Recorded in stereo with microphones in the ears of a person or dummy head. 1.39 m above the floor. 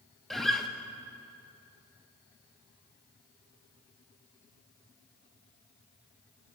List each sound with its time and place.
0.3 s a guitar: centre (ahead or behind), 0.6 m